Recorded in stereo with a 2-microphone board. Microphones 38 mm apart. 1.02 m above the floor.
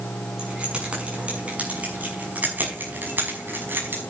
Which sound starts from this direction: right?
Keys jangling, at 0.4 s.